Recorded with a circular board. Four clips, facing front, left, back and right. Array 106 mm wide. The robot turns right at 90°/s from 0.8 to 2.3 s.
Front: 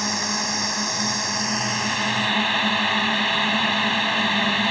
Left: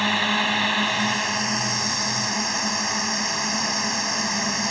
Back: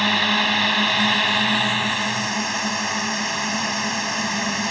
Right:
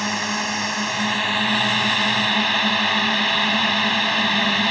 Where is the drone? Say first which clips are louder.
Left 2 dB, back 6 dB; 160° left; by 4.7 s 65° right.